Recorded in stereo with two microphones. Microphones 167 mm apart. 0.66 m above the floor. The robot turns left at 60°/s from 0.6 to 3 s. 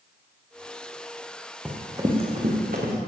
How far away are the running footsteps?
About 2.5 m.